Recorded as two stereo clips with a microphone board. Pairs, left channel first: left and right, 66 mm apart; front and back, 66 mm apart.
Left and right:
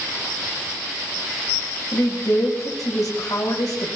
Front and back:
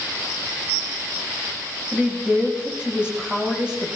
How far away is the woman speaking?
About 4 m.